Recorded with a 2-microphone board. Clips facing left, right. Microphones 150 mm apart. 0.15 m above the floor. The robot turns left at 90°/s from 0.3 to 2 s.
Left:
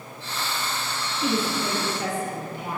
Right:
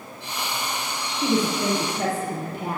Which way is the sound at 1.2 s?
25° right.